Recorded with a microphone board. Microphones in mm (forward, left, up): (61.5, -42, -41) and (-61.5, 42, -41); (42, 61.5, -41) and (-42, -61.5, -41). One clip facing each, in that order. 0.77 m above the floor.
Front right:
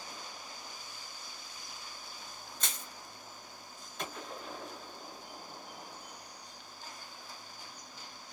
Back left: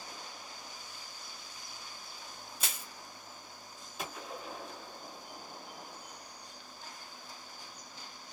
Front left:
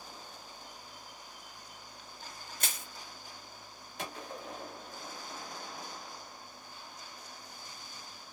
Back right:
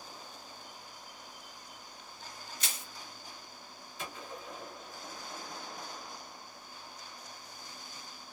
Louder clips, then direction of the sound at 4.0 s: Even, front left 2 dB; 60° left.